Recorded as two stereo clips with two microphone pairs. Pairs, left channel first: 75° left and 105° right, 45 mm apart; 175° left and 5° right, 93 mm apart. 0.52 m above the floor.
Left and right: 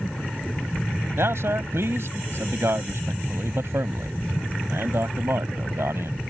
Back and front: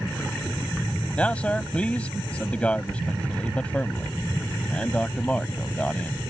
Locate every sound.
1.2 s a man speaking: 105° right